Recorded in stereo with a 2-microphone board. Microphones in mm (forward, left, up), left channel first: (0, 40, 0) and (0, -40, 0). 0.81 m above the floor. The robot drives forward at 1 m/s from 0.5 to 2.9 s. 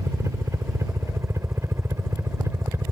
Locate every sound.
0.0 s a helicopter: 35° right (ahead or behind)